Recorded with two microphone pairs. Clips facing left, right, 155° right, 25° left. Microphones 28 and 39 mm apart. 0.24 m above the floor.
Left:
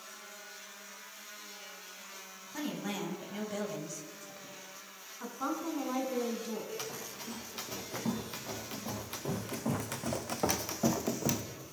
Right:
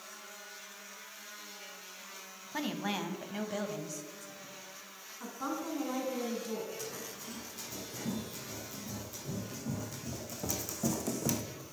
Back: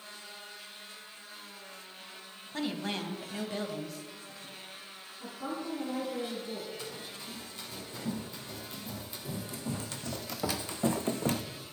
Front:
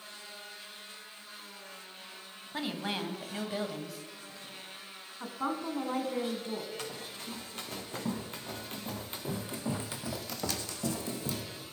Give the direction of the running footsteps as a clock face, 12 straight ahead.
10 o'clock.